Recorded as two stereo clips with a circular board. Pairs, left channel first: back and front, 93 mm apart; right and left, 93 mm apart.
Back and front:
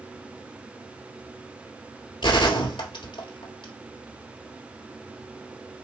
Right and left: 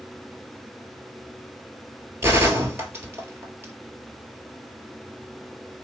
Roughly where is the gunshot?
Behind left.